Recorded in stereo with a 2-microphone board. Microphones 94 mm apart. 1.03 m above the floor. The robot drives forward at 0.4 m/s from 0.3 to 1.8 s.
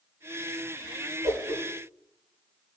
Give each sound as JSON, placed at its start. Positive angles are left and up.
{"t": 1.2, "sound": "a whoosh", "side_deg": -60, "distance_m": 6.5}